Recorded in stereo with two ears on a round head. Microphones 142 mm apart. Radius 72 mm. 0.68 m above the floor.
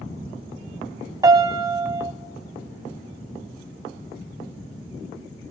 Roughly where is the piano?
Right.